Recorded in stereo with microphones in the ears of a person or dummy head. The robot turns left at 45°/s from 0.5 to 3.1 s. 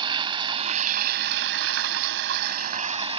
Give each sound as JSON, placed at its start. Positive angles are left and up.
{"t": 0.0, "sound": "running water", "azimuth_deg": -30}